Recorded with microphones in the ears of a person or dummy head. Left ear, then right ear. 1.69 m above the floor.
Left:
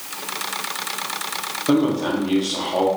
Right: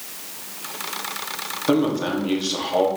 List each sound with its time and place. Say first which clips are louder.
1.7 s a man speaking: left 1 dB; 20° right (ahead or behind), 1.0 m